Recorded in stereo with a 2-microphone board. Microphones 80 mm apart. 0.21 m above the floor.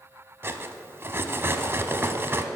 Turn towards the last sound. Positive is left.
turn(degrees=-35)  # may be behind; listen again after turning